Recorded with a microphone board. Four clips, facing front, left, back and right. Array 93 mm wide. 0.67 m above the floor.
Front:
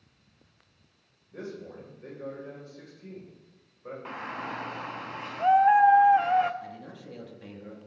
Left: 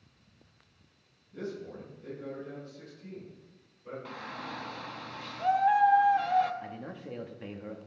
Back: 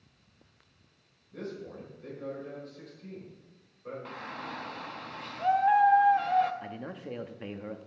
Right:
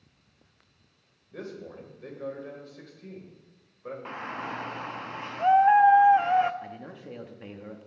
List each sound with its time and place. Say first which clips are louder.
1.3 s a man speaking: left 1 dB, even; 75° right, 3.5 m
4.0 s a shout: right 7 dB, front 8 dB; 55° right, 0.6 m
6.6 s a man speaking: even, back 3 dB; 175° right, 1.0 m